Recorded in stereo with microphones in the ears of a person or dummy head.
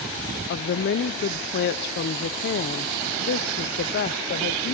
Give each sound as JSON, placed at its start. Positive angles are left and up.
{"t": 0.5, "sound": "a woman speaking", "side_deg": 55, "distance_m": 0.6}